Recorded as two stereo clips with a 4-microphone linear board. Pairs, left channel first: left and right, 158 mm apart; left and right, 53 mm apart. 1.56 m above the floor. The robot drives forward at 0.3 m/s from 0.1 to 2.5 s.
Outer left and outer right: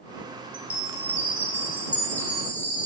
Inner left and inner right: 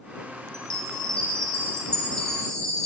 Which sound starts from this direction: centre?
A chime, at 0.5 s.